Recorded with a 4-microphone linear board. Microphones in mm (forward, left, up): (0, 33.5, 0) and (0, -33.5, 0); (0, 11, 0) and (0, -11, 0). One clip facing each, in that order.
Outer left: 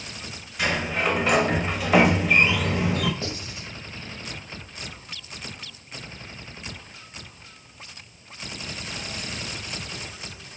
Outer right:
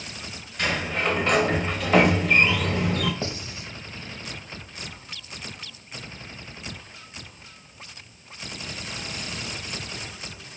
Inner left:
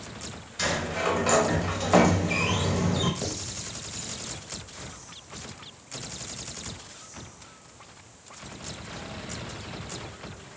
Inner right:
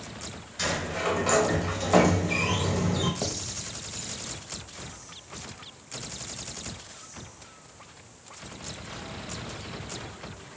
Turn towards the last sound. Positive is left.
turn(degrees=-30)  # may be behind; listen again after turning